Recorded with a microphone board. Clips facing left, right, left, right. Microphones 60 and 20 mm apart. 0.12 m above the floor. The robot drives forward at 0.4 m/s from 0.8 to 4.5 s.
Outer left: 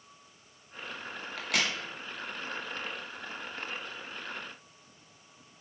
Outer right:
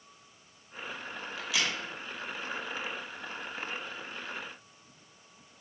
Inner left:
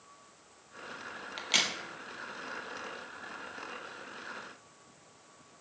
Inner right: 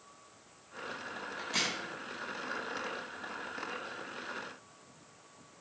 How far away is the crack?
About 0.6 m.